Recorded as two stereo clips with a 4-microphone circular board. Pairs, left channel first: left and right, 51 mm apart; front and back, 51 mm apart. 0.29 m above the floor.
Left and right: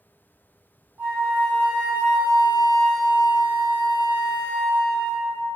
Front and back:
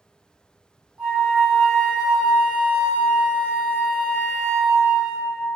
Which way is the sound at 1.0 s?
115° right.